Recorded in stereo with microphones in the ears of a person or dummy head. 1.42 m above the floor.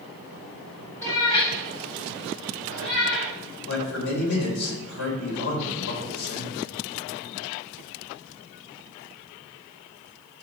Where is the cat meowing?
10° left (ahead or behind), 1.3 m; by 3.3 s 60° left (ahead or behind), 3 m.